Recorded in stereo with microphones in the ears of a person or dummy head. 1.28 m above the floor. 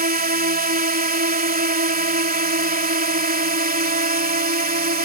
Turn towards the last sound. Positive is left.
turn(degrees=-40)  # may be behind; listen again after turning